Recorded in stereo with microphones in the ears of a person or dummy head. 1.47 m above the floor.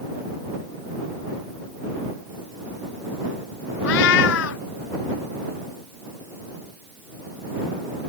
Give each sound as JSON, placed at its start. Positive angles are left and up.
{"t": 3.8, "sound": "a cat meowing", "side_deg": 70}